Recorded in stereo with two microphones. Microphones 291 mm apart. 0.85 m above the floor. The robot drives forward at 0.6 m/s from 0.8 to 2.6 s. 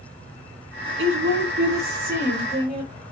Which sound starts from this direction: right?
A woman speaking, at 1.0 s.